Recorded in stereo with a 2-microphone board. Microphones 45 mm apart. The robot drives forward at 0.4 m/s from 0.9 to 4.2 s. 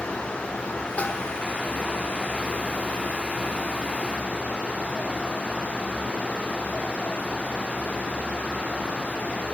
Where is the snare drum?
35° left (ahead or behind), 1.3 m.